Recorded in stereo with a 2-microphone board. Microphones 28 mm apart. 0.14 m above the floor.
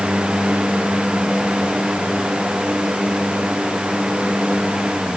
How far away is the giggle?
No giggle in this recording.